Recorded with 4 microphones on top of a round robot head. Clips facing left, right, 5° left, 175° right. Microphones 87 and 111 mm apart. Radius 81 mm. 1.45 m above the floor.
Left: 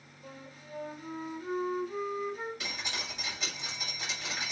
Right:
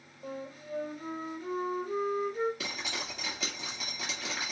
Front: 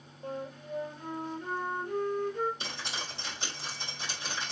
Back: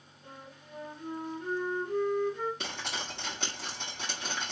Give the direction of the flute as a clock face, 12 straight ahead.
1 o'clock.